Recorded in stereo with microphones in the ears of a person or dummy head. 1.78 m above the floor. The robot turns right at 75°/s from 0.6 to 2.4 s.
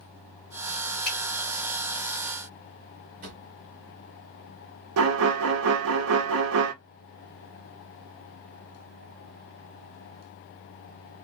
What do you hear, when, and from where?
1.1 s a finger snap: 10° left (ahead or behind), 1.3 m; by 1.2 s centre (ahead or behind), 1.3 m
3.2 s a drawer: 45° right (ahead or behind), 1.3 m
5.0 s a violin: 75° right (ahead or behind), 0.7 m